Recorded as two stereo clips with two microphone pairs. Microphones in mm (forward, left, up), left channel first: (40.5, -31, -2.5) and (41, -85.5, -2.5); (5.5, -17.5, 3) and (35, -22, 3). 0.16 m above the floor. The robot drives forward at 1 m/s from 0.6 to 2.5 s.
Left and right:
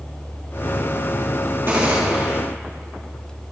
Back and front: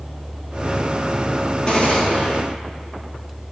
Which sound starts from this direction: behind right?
A gunshot, at 1.7 s.